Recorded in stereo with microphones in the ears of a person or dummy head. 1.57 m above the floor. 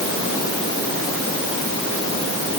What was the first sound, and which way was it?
Only background noise.